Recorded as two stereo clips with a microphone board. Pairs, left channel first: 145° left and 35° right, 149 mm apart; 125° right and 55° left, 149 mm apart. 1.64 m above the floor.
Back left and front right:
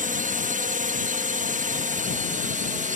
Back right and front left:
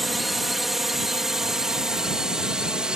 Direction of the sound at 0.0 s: 35° right.